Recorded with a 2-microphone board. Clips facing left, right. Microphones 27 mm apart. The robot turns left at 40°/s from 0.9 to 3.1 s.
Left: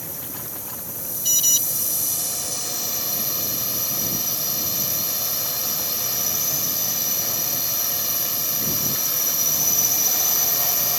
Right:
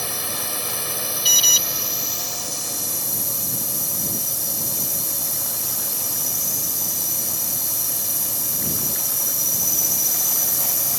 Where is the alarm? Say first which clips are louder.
Right 4 dB; 45° right (ahead or behind); by 1.6 s 30° right (ahead or behind).